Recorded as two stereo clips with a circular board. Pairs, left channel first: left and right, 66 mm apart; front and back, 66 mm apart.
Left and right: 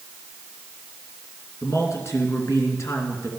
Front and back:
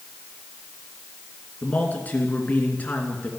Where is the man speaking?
65° left, 2.5 m.